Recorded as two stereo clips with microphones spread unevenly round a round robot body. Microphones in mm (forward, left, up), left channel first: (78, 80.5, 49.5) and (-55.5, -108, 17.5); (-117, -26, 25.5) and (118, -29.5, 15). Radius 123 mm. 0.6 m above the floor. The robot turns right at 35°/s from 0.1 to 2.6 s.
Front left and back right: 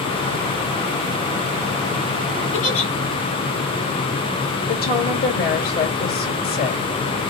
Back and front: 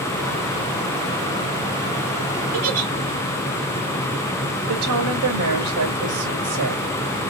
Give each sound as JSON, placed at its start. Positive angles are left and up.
{"t": 2.5, "sound": "a giggle", "azimuth_deg": 25, "distance_m": 2.5}
{"t": 4.7, "sound": "a woman speaking", "azimuth_deg": 5, "distance_m": 2.5}